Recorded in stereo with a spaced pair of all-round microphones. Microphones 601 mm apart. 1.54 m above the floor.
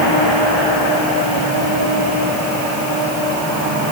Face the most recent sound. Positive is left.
No sound to turn to.